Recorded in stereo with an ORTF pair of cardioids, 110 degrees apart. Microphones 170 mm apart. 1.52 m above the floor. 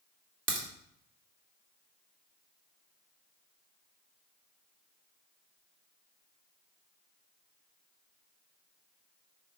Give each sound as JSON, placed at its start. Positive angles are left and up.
{"t": 0.5, "sound": "a crack", "azimuth_deg": -55, "distance_m": 2.5}